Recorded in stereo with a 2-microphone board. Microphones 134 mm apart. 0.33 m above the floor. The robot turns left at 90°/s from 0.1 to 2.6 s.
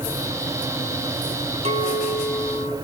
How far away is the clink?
About 1.3 m.